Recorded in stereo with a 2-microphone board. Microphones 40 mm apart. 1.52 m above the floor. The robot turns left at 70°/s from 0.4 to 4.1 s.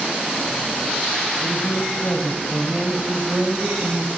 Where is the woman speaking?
115° left, 8 m; by 4.1 s 70° right, 8 m.